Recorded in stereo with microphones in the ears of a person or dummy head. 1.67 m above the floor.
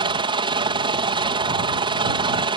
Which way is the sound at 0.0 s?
20° right (ahead or behind).